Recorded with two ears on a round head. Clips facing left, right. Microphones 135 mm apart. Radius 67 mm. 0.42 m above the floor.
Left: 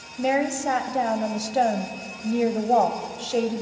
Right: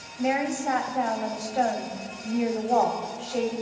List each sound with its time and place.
0.2 s a woman speaking: 40° left (ahead or behind), 1.7 m